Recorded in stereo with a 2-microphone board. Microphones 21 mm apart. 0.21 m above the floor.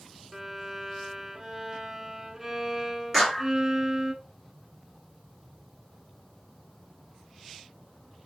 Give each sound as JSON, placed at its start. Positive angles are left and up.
{"t": 0.3, "sound": "a violin", "side_deg": -20, "distance_m": 0.6}
{"t": 3.1, "sound": "a clap", "side_deg": 0, "distance_m": 2.0}